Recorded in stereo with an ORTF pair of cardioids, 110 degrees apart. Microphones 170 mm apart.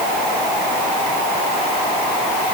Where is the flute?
I don't hear a flute.